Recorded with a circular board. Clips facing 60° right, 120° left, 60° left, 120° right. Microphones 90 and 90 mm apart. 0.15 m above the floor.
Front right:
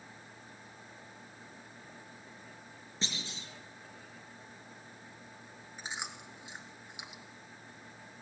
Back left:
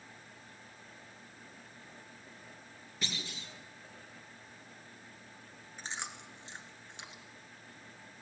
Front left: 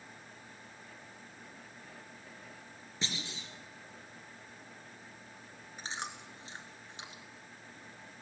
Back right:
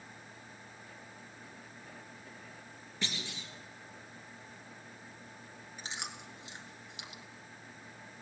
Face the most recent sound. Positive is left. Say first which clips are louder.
# front right 1 dB, front left 3 dB
turn(degrees=15)